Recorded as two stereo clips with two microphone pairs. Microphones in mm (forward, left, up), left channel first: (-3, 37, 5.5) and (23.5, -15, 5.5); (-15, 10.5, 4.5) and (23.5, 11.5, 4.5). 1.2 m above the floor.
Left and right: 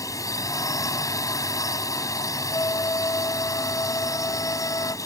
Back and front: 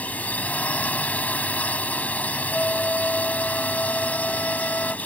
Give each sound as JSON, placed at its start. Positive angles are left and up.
{"t": 0.0, "sound": "a drone", "azimuth_deg": 130}
{"t": 2.5, "sound": "a flute", "azimuth_deg": 135}